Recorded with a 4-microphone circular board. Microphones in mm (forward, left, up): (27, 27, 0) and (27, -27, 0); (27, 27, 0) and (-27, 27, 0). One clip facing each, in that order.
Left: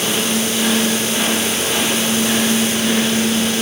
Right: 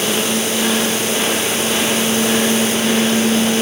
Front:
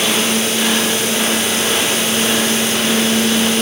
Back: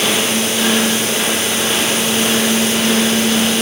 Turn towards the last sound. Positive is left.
No sound to turn to.